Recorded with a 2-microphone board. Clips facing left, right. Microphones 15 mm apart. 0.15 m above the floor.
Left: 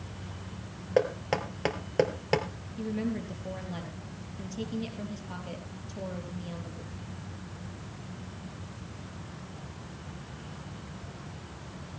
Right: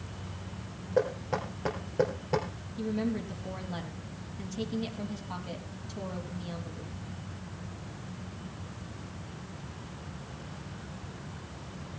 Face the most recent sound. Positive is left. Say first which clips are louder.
# right 1 dB
turn(degrees=10)  # may be behind; listen again after turning